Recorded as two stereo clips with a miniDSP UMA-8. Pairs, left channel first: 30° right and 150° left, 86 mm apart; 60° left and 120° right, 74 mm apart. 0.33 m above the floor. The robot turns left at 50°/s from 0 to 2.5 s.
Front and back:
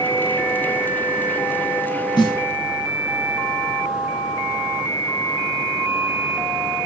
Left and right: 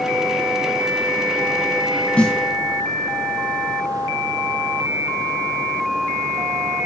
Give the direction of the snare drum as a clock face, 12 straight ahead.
12 o'clock.